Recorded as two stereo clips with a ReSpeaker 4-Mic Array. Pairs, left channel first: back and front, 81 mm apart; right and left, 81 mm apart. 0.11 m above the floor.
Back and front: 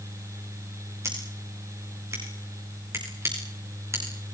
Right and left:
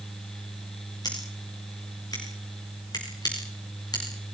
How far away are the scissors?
About 7 m.